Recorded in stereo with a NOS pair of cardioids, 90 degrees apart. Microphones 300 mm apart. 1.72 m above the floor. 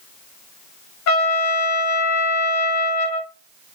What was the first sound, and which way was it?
A trumpet, 65° left.